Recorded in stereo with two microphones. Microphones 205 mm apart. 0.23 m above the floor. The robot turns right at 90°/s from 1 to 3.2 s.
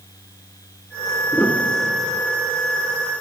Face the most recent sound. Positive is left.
turn(degrees=-25)